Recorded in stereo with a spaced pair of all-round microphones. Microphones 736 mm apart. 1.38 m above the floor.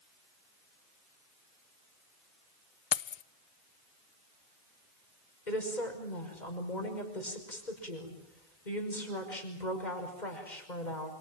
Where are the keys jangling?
65° left (ahead or behind), 0.6 m.